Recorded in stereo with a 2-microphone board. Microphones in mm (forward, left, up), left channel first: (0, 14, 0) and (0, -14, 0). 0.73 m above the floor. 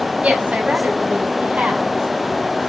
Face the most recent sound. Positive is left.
turn(degrees=-50)  # may be behind; listen again after turning